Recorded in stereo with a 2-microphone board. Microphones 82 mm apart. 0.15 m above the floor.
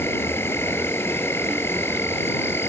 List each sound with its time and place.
0.0 s an insect: 30° left (ahead or behind)